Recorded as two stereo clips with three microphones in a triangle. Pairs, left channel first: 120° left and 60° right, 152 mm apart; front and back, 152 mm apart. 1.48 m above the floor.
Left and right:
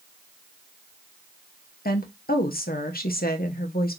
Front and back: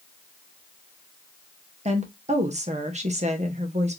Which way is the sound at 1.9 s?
135° left.